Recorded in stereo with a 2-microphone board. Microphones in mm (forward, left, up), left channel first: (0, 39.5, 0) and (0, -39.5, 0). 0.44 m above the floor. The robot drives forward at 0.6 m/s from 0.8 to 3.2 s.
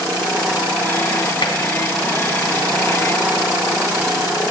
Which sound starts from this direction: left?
Tapping, at 1.4 s.